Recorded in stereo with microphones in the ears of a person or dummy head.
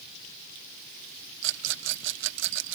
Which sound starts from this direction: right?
A rattle, at 1.4 s.